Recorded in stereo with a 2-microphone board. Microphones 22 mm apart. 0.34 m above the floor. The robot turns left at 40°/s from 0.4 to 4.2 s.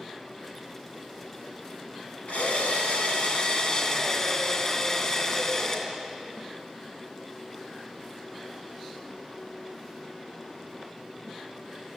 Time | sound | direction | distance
2.3 | a drill | 105° left | 3 m